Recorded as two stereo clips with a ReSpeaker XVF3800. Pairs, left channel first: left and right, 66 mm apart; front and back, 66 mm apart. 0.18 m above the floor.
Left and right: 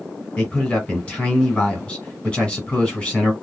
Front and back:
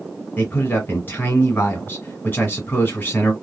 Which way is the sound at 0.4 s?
25° left.